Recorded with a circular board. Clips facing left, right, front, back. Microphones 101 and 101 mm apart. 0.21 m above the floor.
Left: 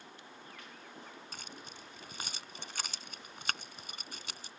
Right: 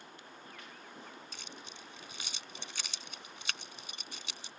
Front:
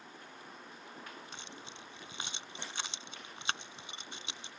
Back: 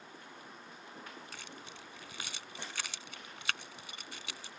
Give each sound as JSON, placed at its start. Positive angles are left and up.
{"t": 1.3, "sound": "keys jangling", "azimuth_deg": 60}